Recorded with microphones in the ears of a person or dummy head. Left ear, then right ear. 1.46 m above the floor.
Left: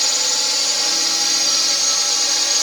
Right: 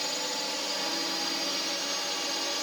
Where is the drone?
50° left (ahead or behind).